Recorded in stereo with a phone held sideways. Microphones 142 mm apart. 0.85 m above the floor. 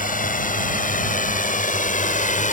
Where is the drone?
70° left (ahead or behind); by 2.5 s 65° left (ahead or behind).